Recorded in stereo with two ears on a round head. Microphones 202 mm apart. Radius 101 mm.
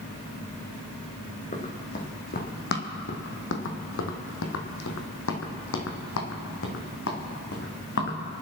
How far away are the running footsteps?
About 3 m.